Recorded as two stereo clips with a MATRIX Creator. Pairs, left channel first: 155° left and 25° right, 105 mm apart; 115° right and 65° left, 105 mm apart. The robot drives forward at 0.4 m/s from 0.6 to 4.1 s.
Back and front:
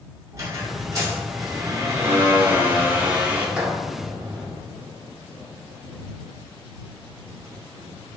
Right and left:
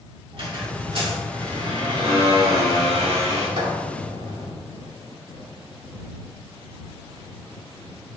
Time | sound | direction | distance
0.3 | a squeak | 35° left | 2.5 m